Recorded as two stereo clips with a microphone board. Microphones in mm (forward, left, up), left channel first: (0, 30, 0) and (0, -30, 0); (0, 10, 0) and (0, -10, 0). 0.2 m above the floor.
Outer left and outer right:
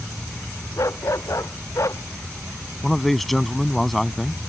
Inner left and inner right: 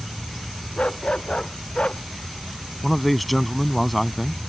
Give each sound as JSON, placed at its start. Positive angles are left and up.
{"t": 0.8, "sound": "a dog barking", "side_deg": 60}
{"t": 2.8, "sound": "a man speaking", "side_deg": 5}